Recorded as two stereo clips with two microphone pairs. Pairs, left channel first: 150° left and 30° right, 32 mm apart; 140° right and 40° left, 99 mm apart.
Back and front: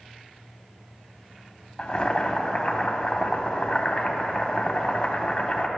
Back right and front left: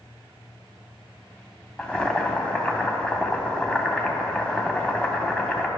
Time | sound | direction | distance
1.8 | boiling | 155° left | 0.7 m